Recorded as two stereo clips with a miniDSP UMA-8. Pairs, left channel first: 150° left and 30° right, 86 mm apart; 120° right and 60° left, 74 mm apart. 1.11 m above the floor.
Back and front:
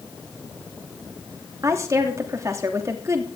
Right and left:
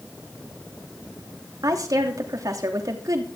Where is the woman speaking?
25° left, 3 m.